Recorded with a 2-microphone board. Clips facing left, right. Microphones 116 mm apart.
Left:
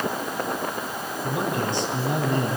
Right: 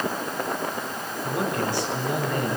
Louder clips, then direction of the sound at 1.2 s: Even; 20° left (ahead or behind).